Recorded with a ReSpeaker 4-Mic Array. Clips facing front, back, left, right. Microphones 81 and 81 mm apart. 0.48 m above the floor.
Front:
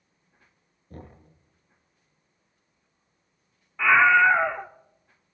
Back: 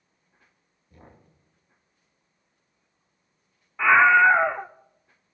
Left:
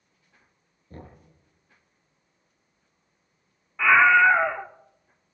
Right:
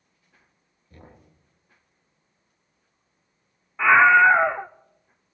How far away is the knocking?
About 9.5 m.